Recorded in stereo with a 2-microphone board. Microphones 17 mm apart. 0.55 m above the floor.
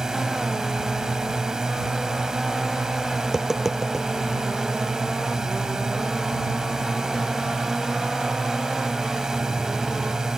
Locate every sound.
0.0 s a drone: 40° right (ahead or behind)
3.2 s tapping: 20° right (ahead or behind)